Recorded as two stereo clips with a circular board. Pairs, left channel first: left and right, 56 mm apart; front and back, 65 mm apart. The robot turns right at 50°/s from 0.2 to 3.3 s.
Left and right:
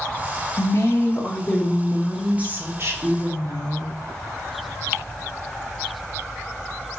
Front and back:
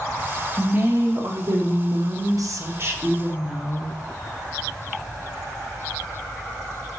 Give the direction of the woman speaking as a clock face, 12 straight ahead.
8 o'clock.